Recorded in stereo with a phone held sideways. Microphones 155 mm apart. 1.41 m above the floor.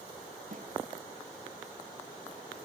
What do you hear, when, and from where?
0.5 s a snare drum: 60° right (ahead or behind), 3 m